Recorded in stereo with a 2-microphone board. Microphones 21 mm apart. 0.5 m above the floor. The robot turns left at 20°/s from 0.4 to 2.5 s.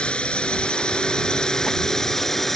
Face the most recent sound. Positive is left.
turn(degrees=10)